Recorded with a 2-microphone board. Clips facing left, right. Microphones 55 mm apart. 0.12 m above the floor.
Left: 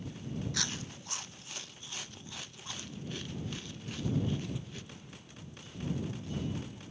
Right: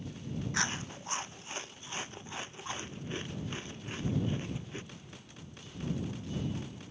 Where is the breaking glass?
I don't hear breaking glass.